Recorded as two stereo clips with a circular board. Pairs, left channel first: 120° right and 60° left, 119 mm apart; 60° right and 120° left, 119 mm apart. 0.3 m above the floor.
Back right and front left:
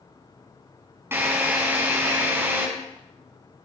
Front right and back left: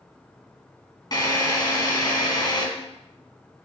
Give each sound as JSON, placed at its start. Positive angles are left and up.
{"t": 1.1, "sound": "a drill", "azimuth_deg": -10, "distance_m": 3.0}